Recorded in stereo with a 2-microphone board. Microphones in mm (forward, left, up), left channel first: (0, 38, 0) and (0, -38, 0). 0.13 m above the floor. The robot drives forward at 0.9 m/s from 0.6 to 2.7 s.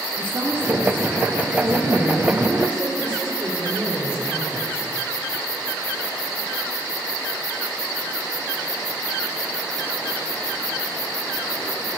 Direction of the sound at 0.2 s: 30° right (ahead or behind).